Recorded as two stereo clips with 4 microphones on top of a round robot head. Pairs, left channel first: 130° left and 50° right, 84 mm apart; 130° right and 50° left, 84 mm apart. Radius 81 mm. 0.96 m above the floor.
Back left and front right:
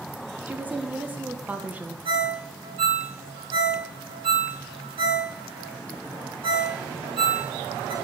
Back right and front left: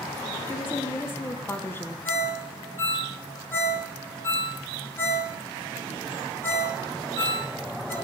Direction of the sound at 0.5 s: 100° right.